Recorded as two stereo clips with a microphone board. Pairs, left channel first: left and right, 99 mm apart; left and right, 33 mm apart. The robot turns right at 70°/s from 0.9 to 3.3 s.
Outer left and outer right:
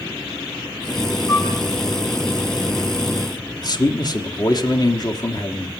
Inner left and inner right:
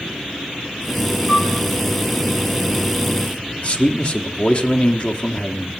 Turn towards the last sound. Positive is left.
turn(degrees=40)  # may be behind; listen again after turning